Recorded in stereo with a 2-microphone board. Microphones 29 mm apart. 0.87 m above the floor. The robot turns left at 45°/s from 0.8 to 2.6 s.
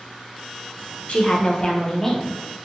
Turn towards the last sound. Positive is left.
turn(degrees=-15)